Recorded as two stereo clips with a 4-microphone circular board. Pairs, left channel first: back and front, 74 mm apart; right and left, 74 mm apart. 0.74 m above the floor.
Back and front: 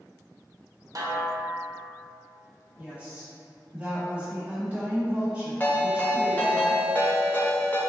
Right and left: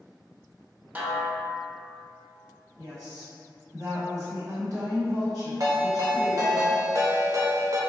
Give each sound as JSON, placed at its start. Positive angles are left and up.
{"t": 0.9, "sound": "a snare drum", "azimuth_deg": 25, "distance_m": 0.6}
{"t": 2.8, "sound": "a woman speaking", "azimuth_deg": 65, "distance_m": 1.2}
{"t": 5.6, "sound": "a ringtone", "azimuth_deg": 120, "distance_m": 0.6}